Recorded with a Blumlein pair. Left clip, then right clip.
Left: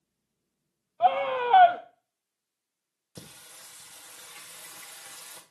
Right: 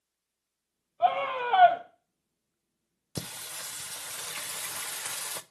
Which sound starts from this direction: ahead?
A scream, at 1.0 s.